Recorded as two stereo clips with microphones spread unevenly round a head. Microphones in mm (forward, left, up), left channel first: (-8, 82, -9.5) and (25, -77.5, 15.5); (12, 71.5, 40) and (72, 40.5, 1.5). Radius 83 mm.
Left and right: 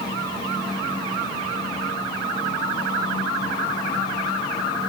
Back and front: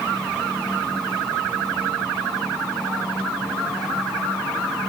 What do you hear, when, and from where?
Only background noise.